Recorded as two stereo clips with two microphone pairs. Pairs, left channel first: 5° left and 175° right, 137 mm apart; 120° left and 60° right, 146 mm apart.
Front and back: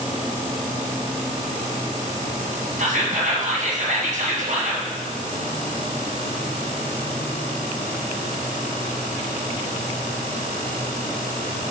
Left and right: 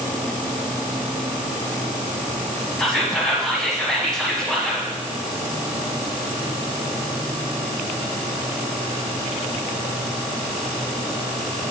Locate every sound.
2.8 s whispering: 155° right, 1.2 m